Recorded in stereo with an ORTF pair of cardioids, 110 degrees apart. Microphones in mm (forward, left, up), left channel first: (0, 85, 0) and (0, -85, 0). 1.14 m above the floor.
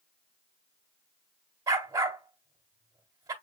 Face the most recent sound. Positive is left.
turn(degrees=-25)